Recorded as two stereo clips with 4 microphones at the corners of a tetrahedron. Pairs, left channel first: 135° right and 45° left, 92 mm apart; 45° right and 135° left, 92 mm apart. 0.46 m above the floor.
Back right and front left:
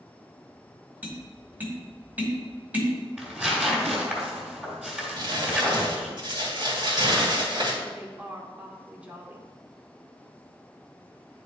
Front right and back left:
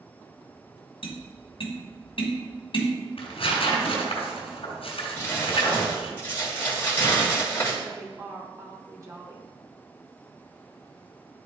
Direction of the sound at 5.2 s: 20° left.